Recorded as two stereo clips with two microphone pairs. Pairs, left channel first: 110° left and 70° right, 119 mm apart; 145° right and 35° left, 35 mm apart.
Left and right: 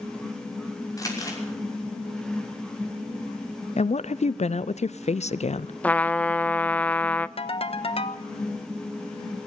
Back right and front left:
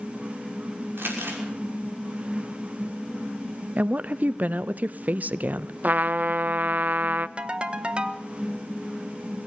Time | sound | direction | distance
1.0 | crumpling | 50° left | 5.5 m
3.8 | a woman speaking | 85° left | 0.6 m
5.8 | a trumpet | 40° left | 0.6 m
7.4 | a ringtone | 95° left | 1.1 m